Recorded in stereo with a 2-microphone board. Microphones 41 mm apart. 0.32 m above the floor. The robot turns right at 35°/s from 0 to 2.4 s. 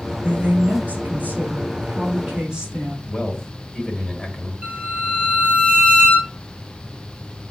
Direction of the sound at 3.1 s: 15° left (ahead or behind).